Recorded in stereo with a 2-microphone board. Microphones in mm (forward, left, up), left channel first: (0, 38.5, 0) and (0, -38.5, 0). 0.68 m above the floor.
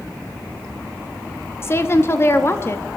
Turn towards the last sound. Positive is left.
turn(degrees=30)  # may be behind; listen again after turning